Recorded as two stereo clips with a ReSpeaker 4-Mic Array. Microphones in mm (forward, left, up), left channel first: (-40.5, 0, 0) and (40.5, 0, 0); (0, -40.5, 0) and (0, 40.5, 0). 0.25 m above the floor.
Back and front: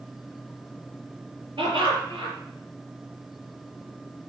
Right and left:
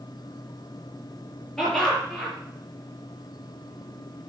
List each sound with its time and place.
1.6 s laughter: 5° right, 5 m